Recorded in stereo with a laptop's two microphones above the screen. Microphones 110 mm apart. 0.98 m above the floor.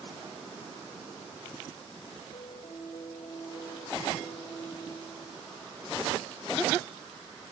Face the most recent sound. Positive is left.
turn(degrees=85)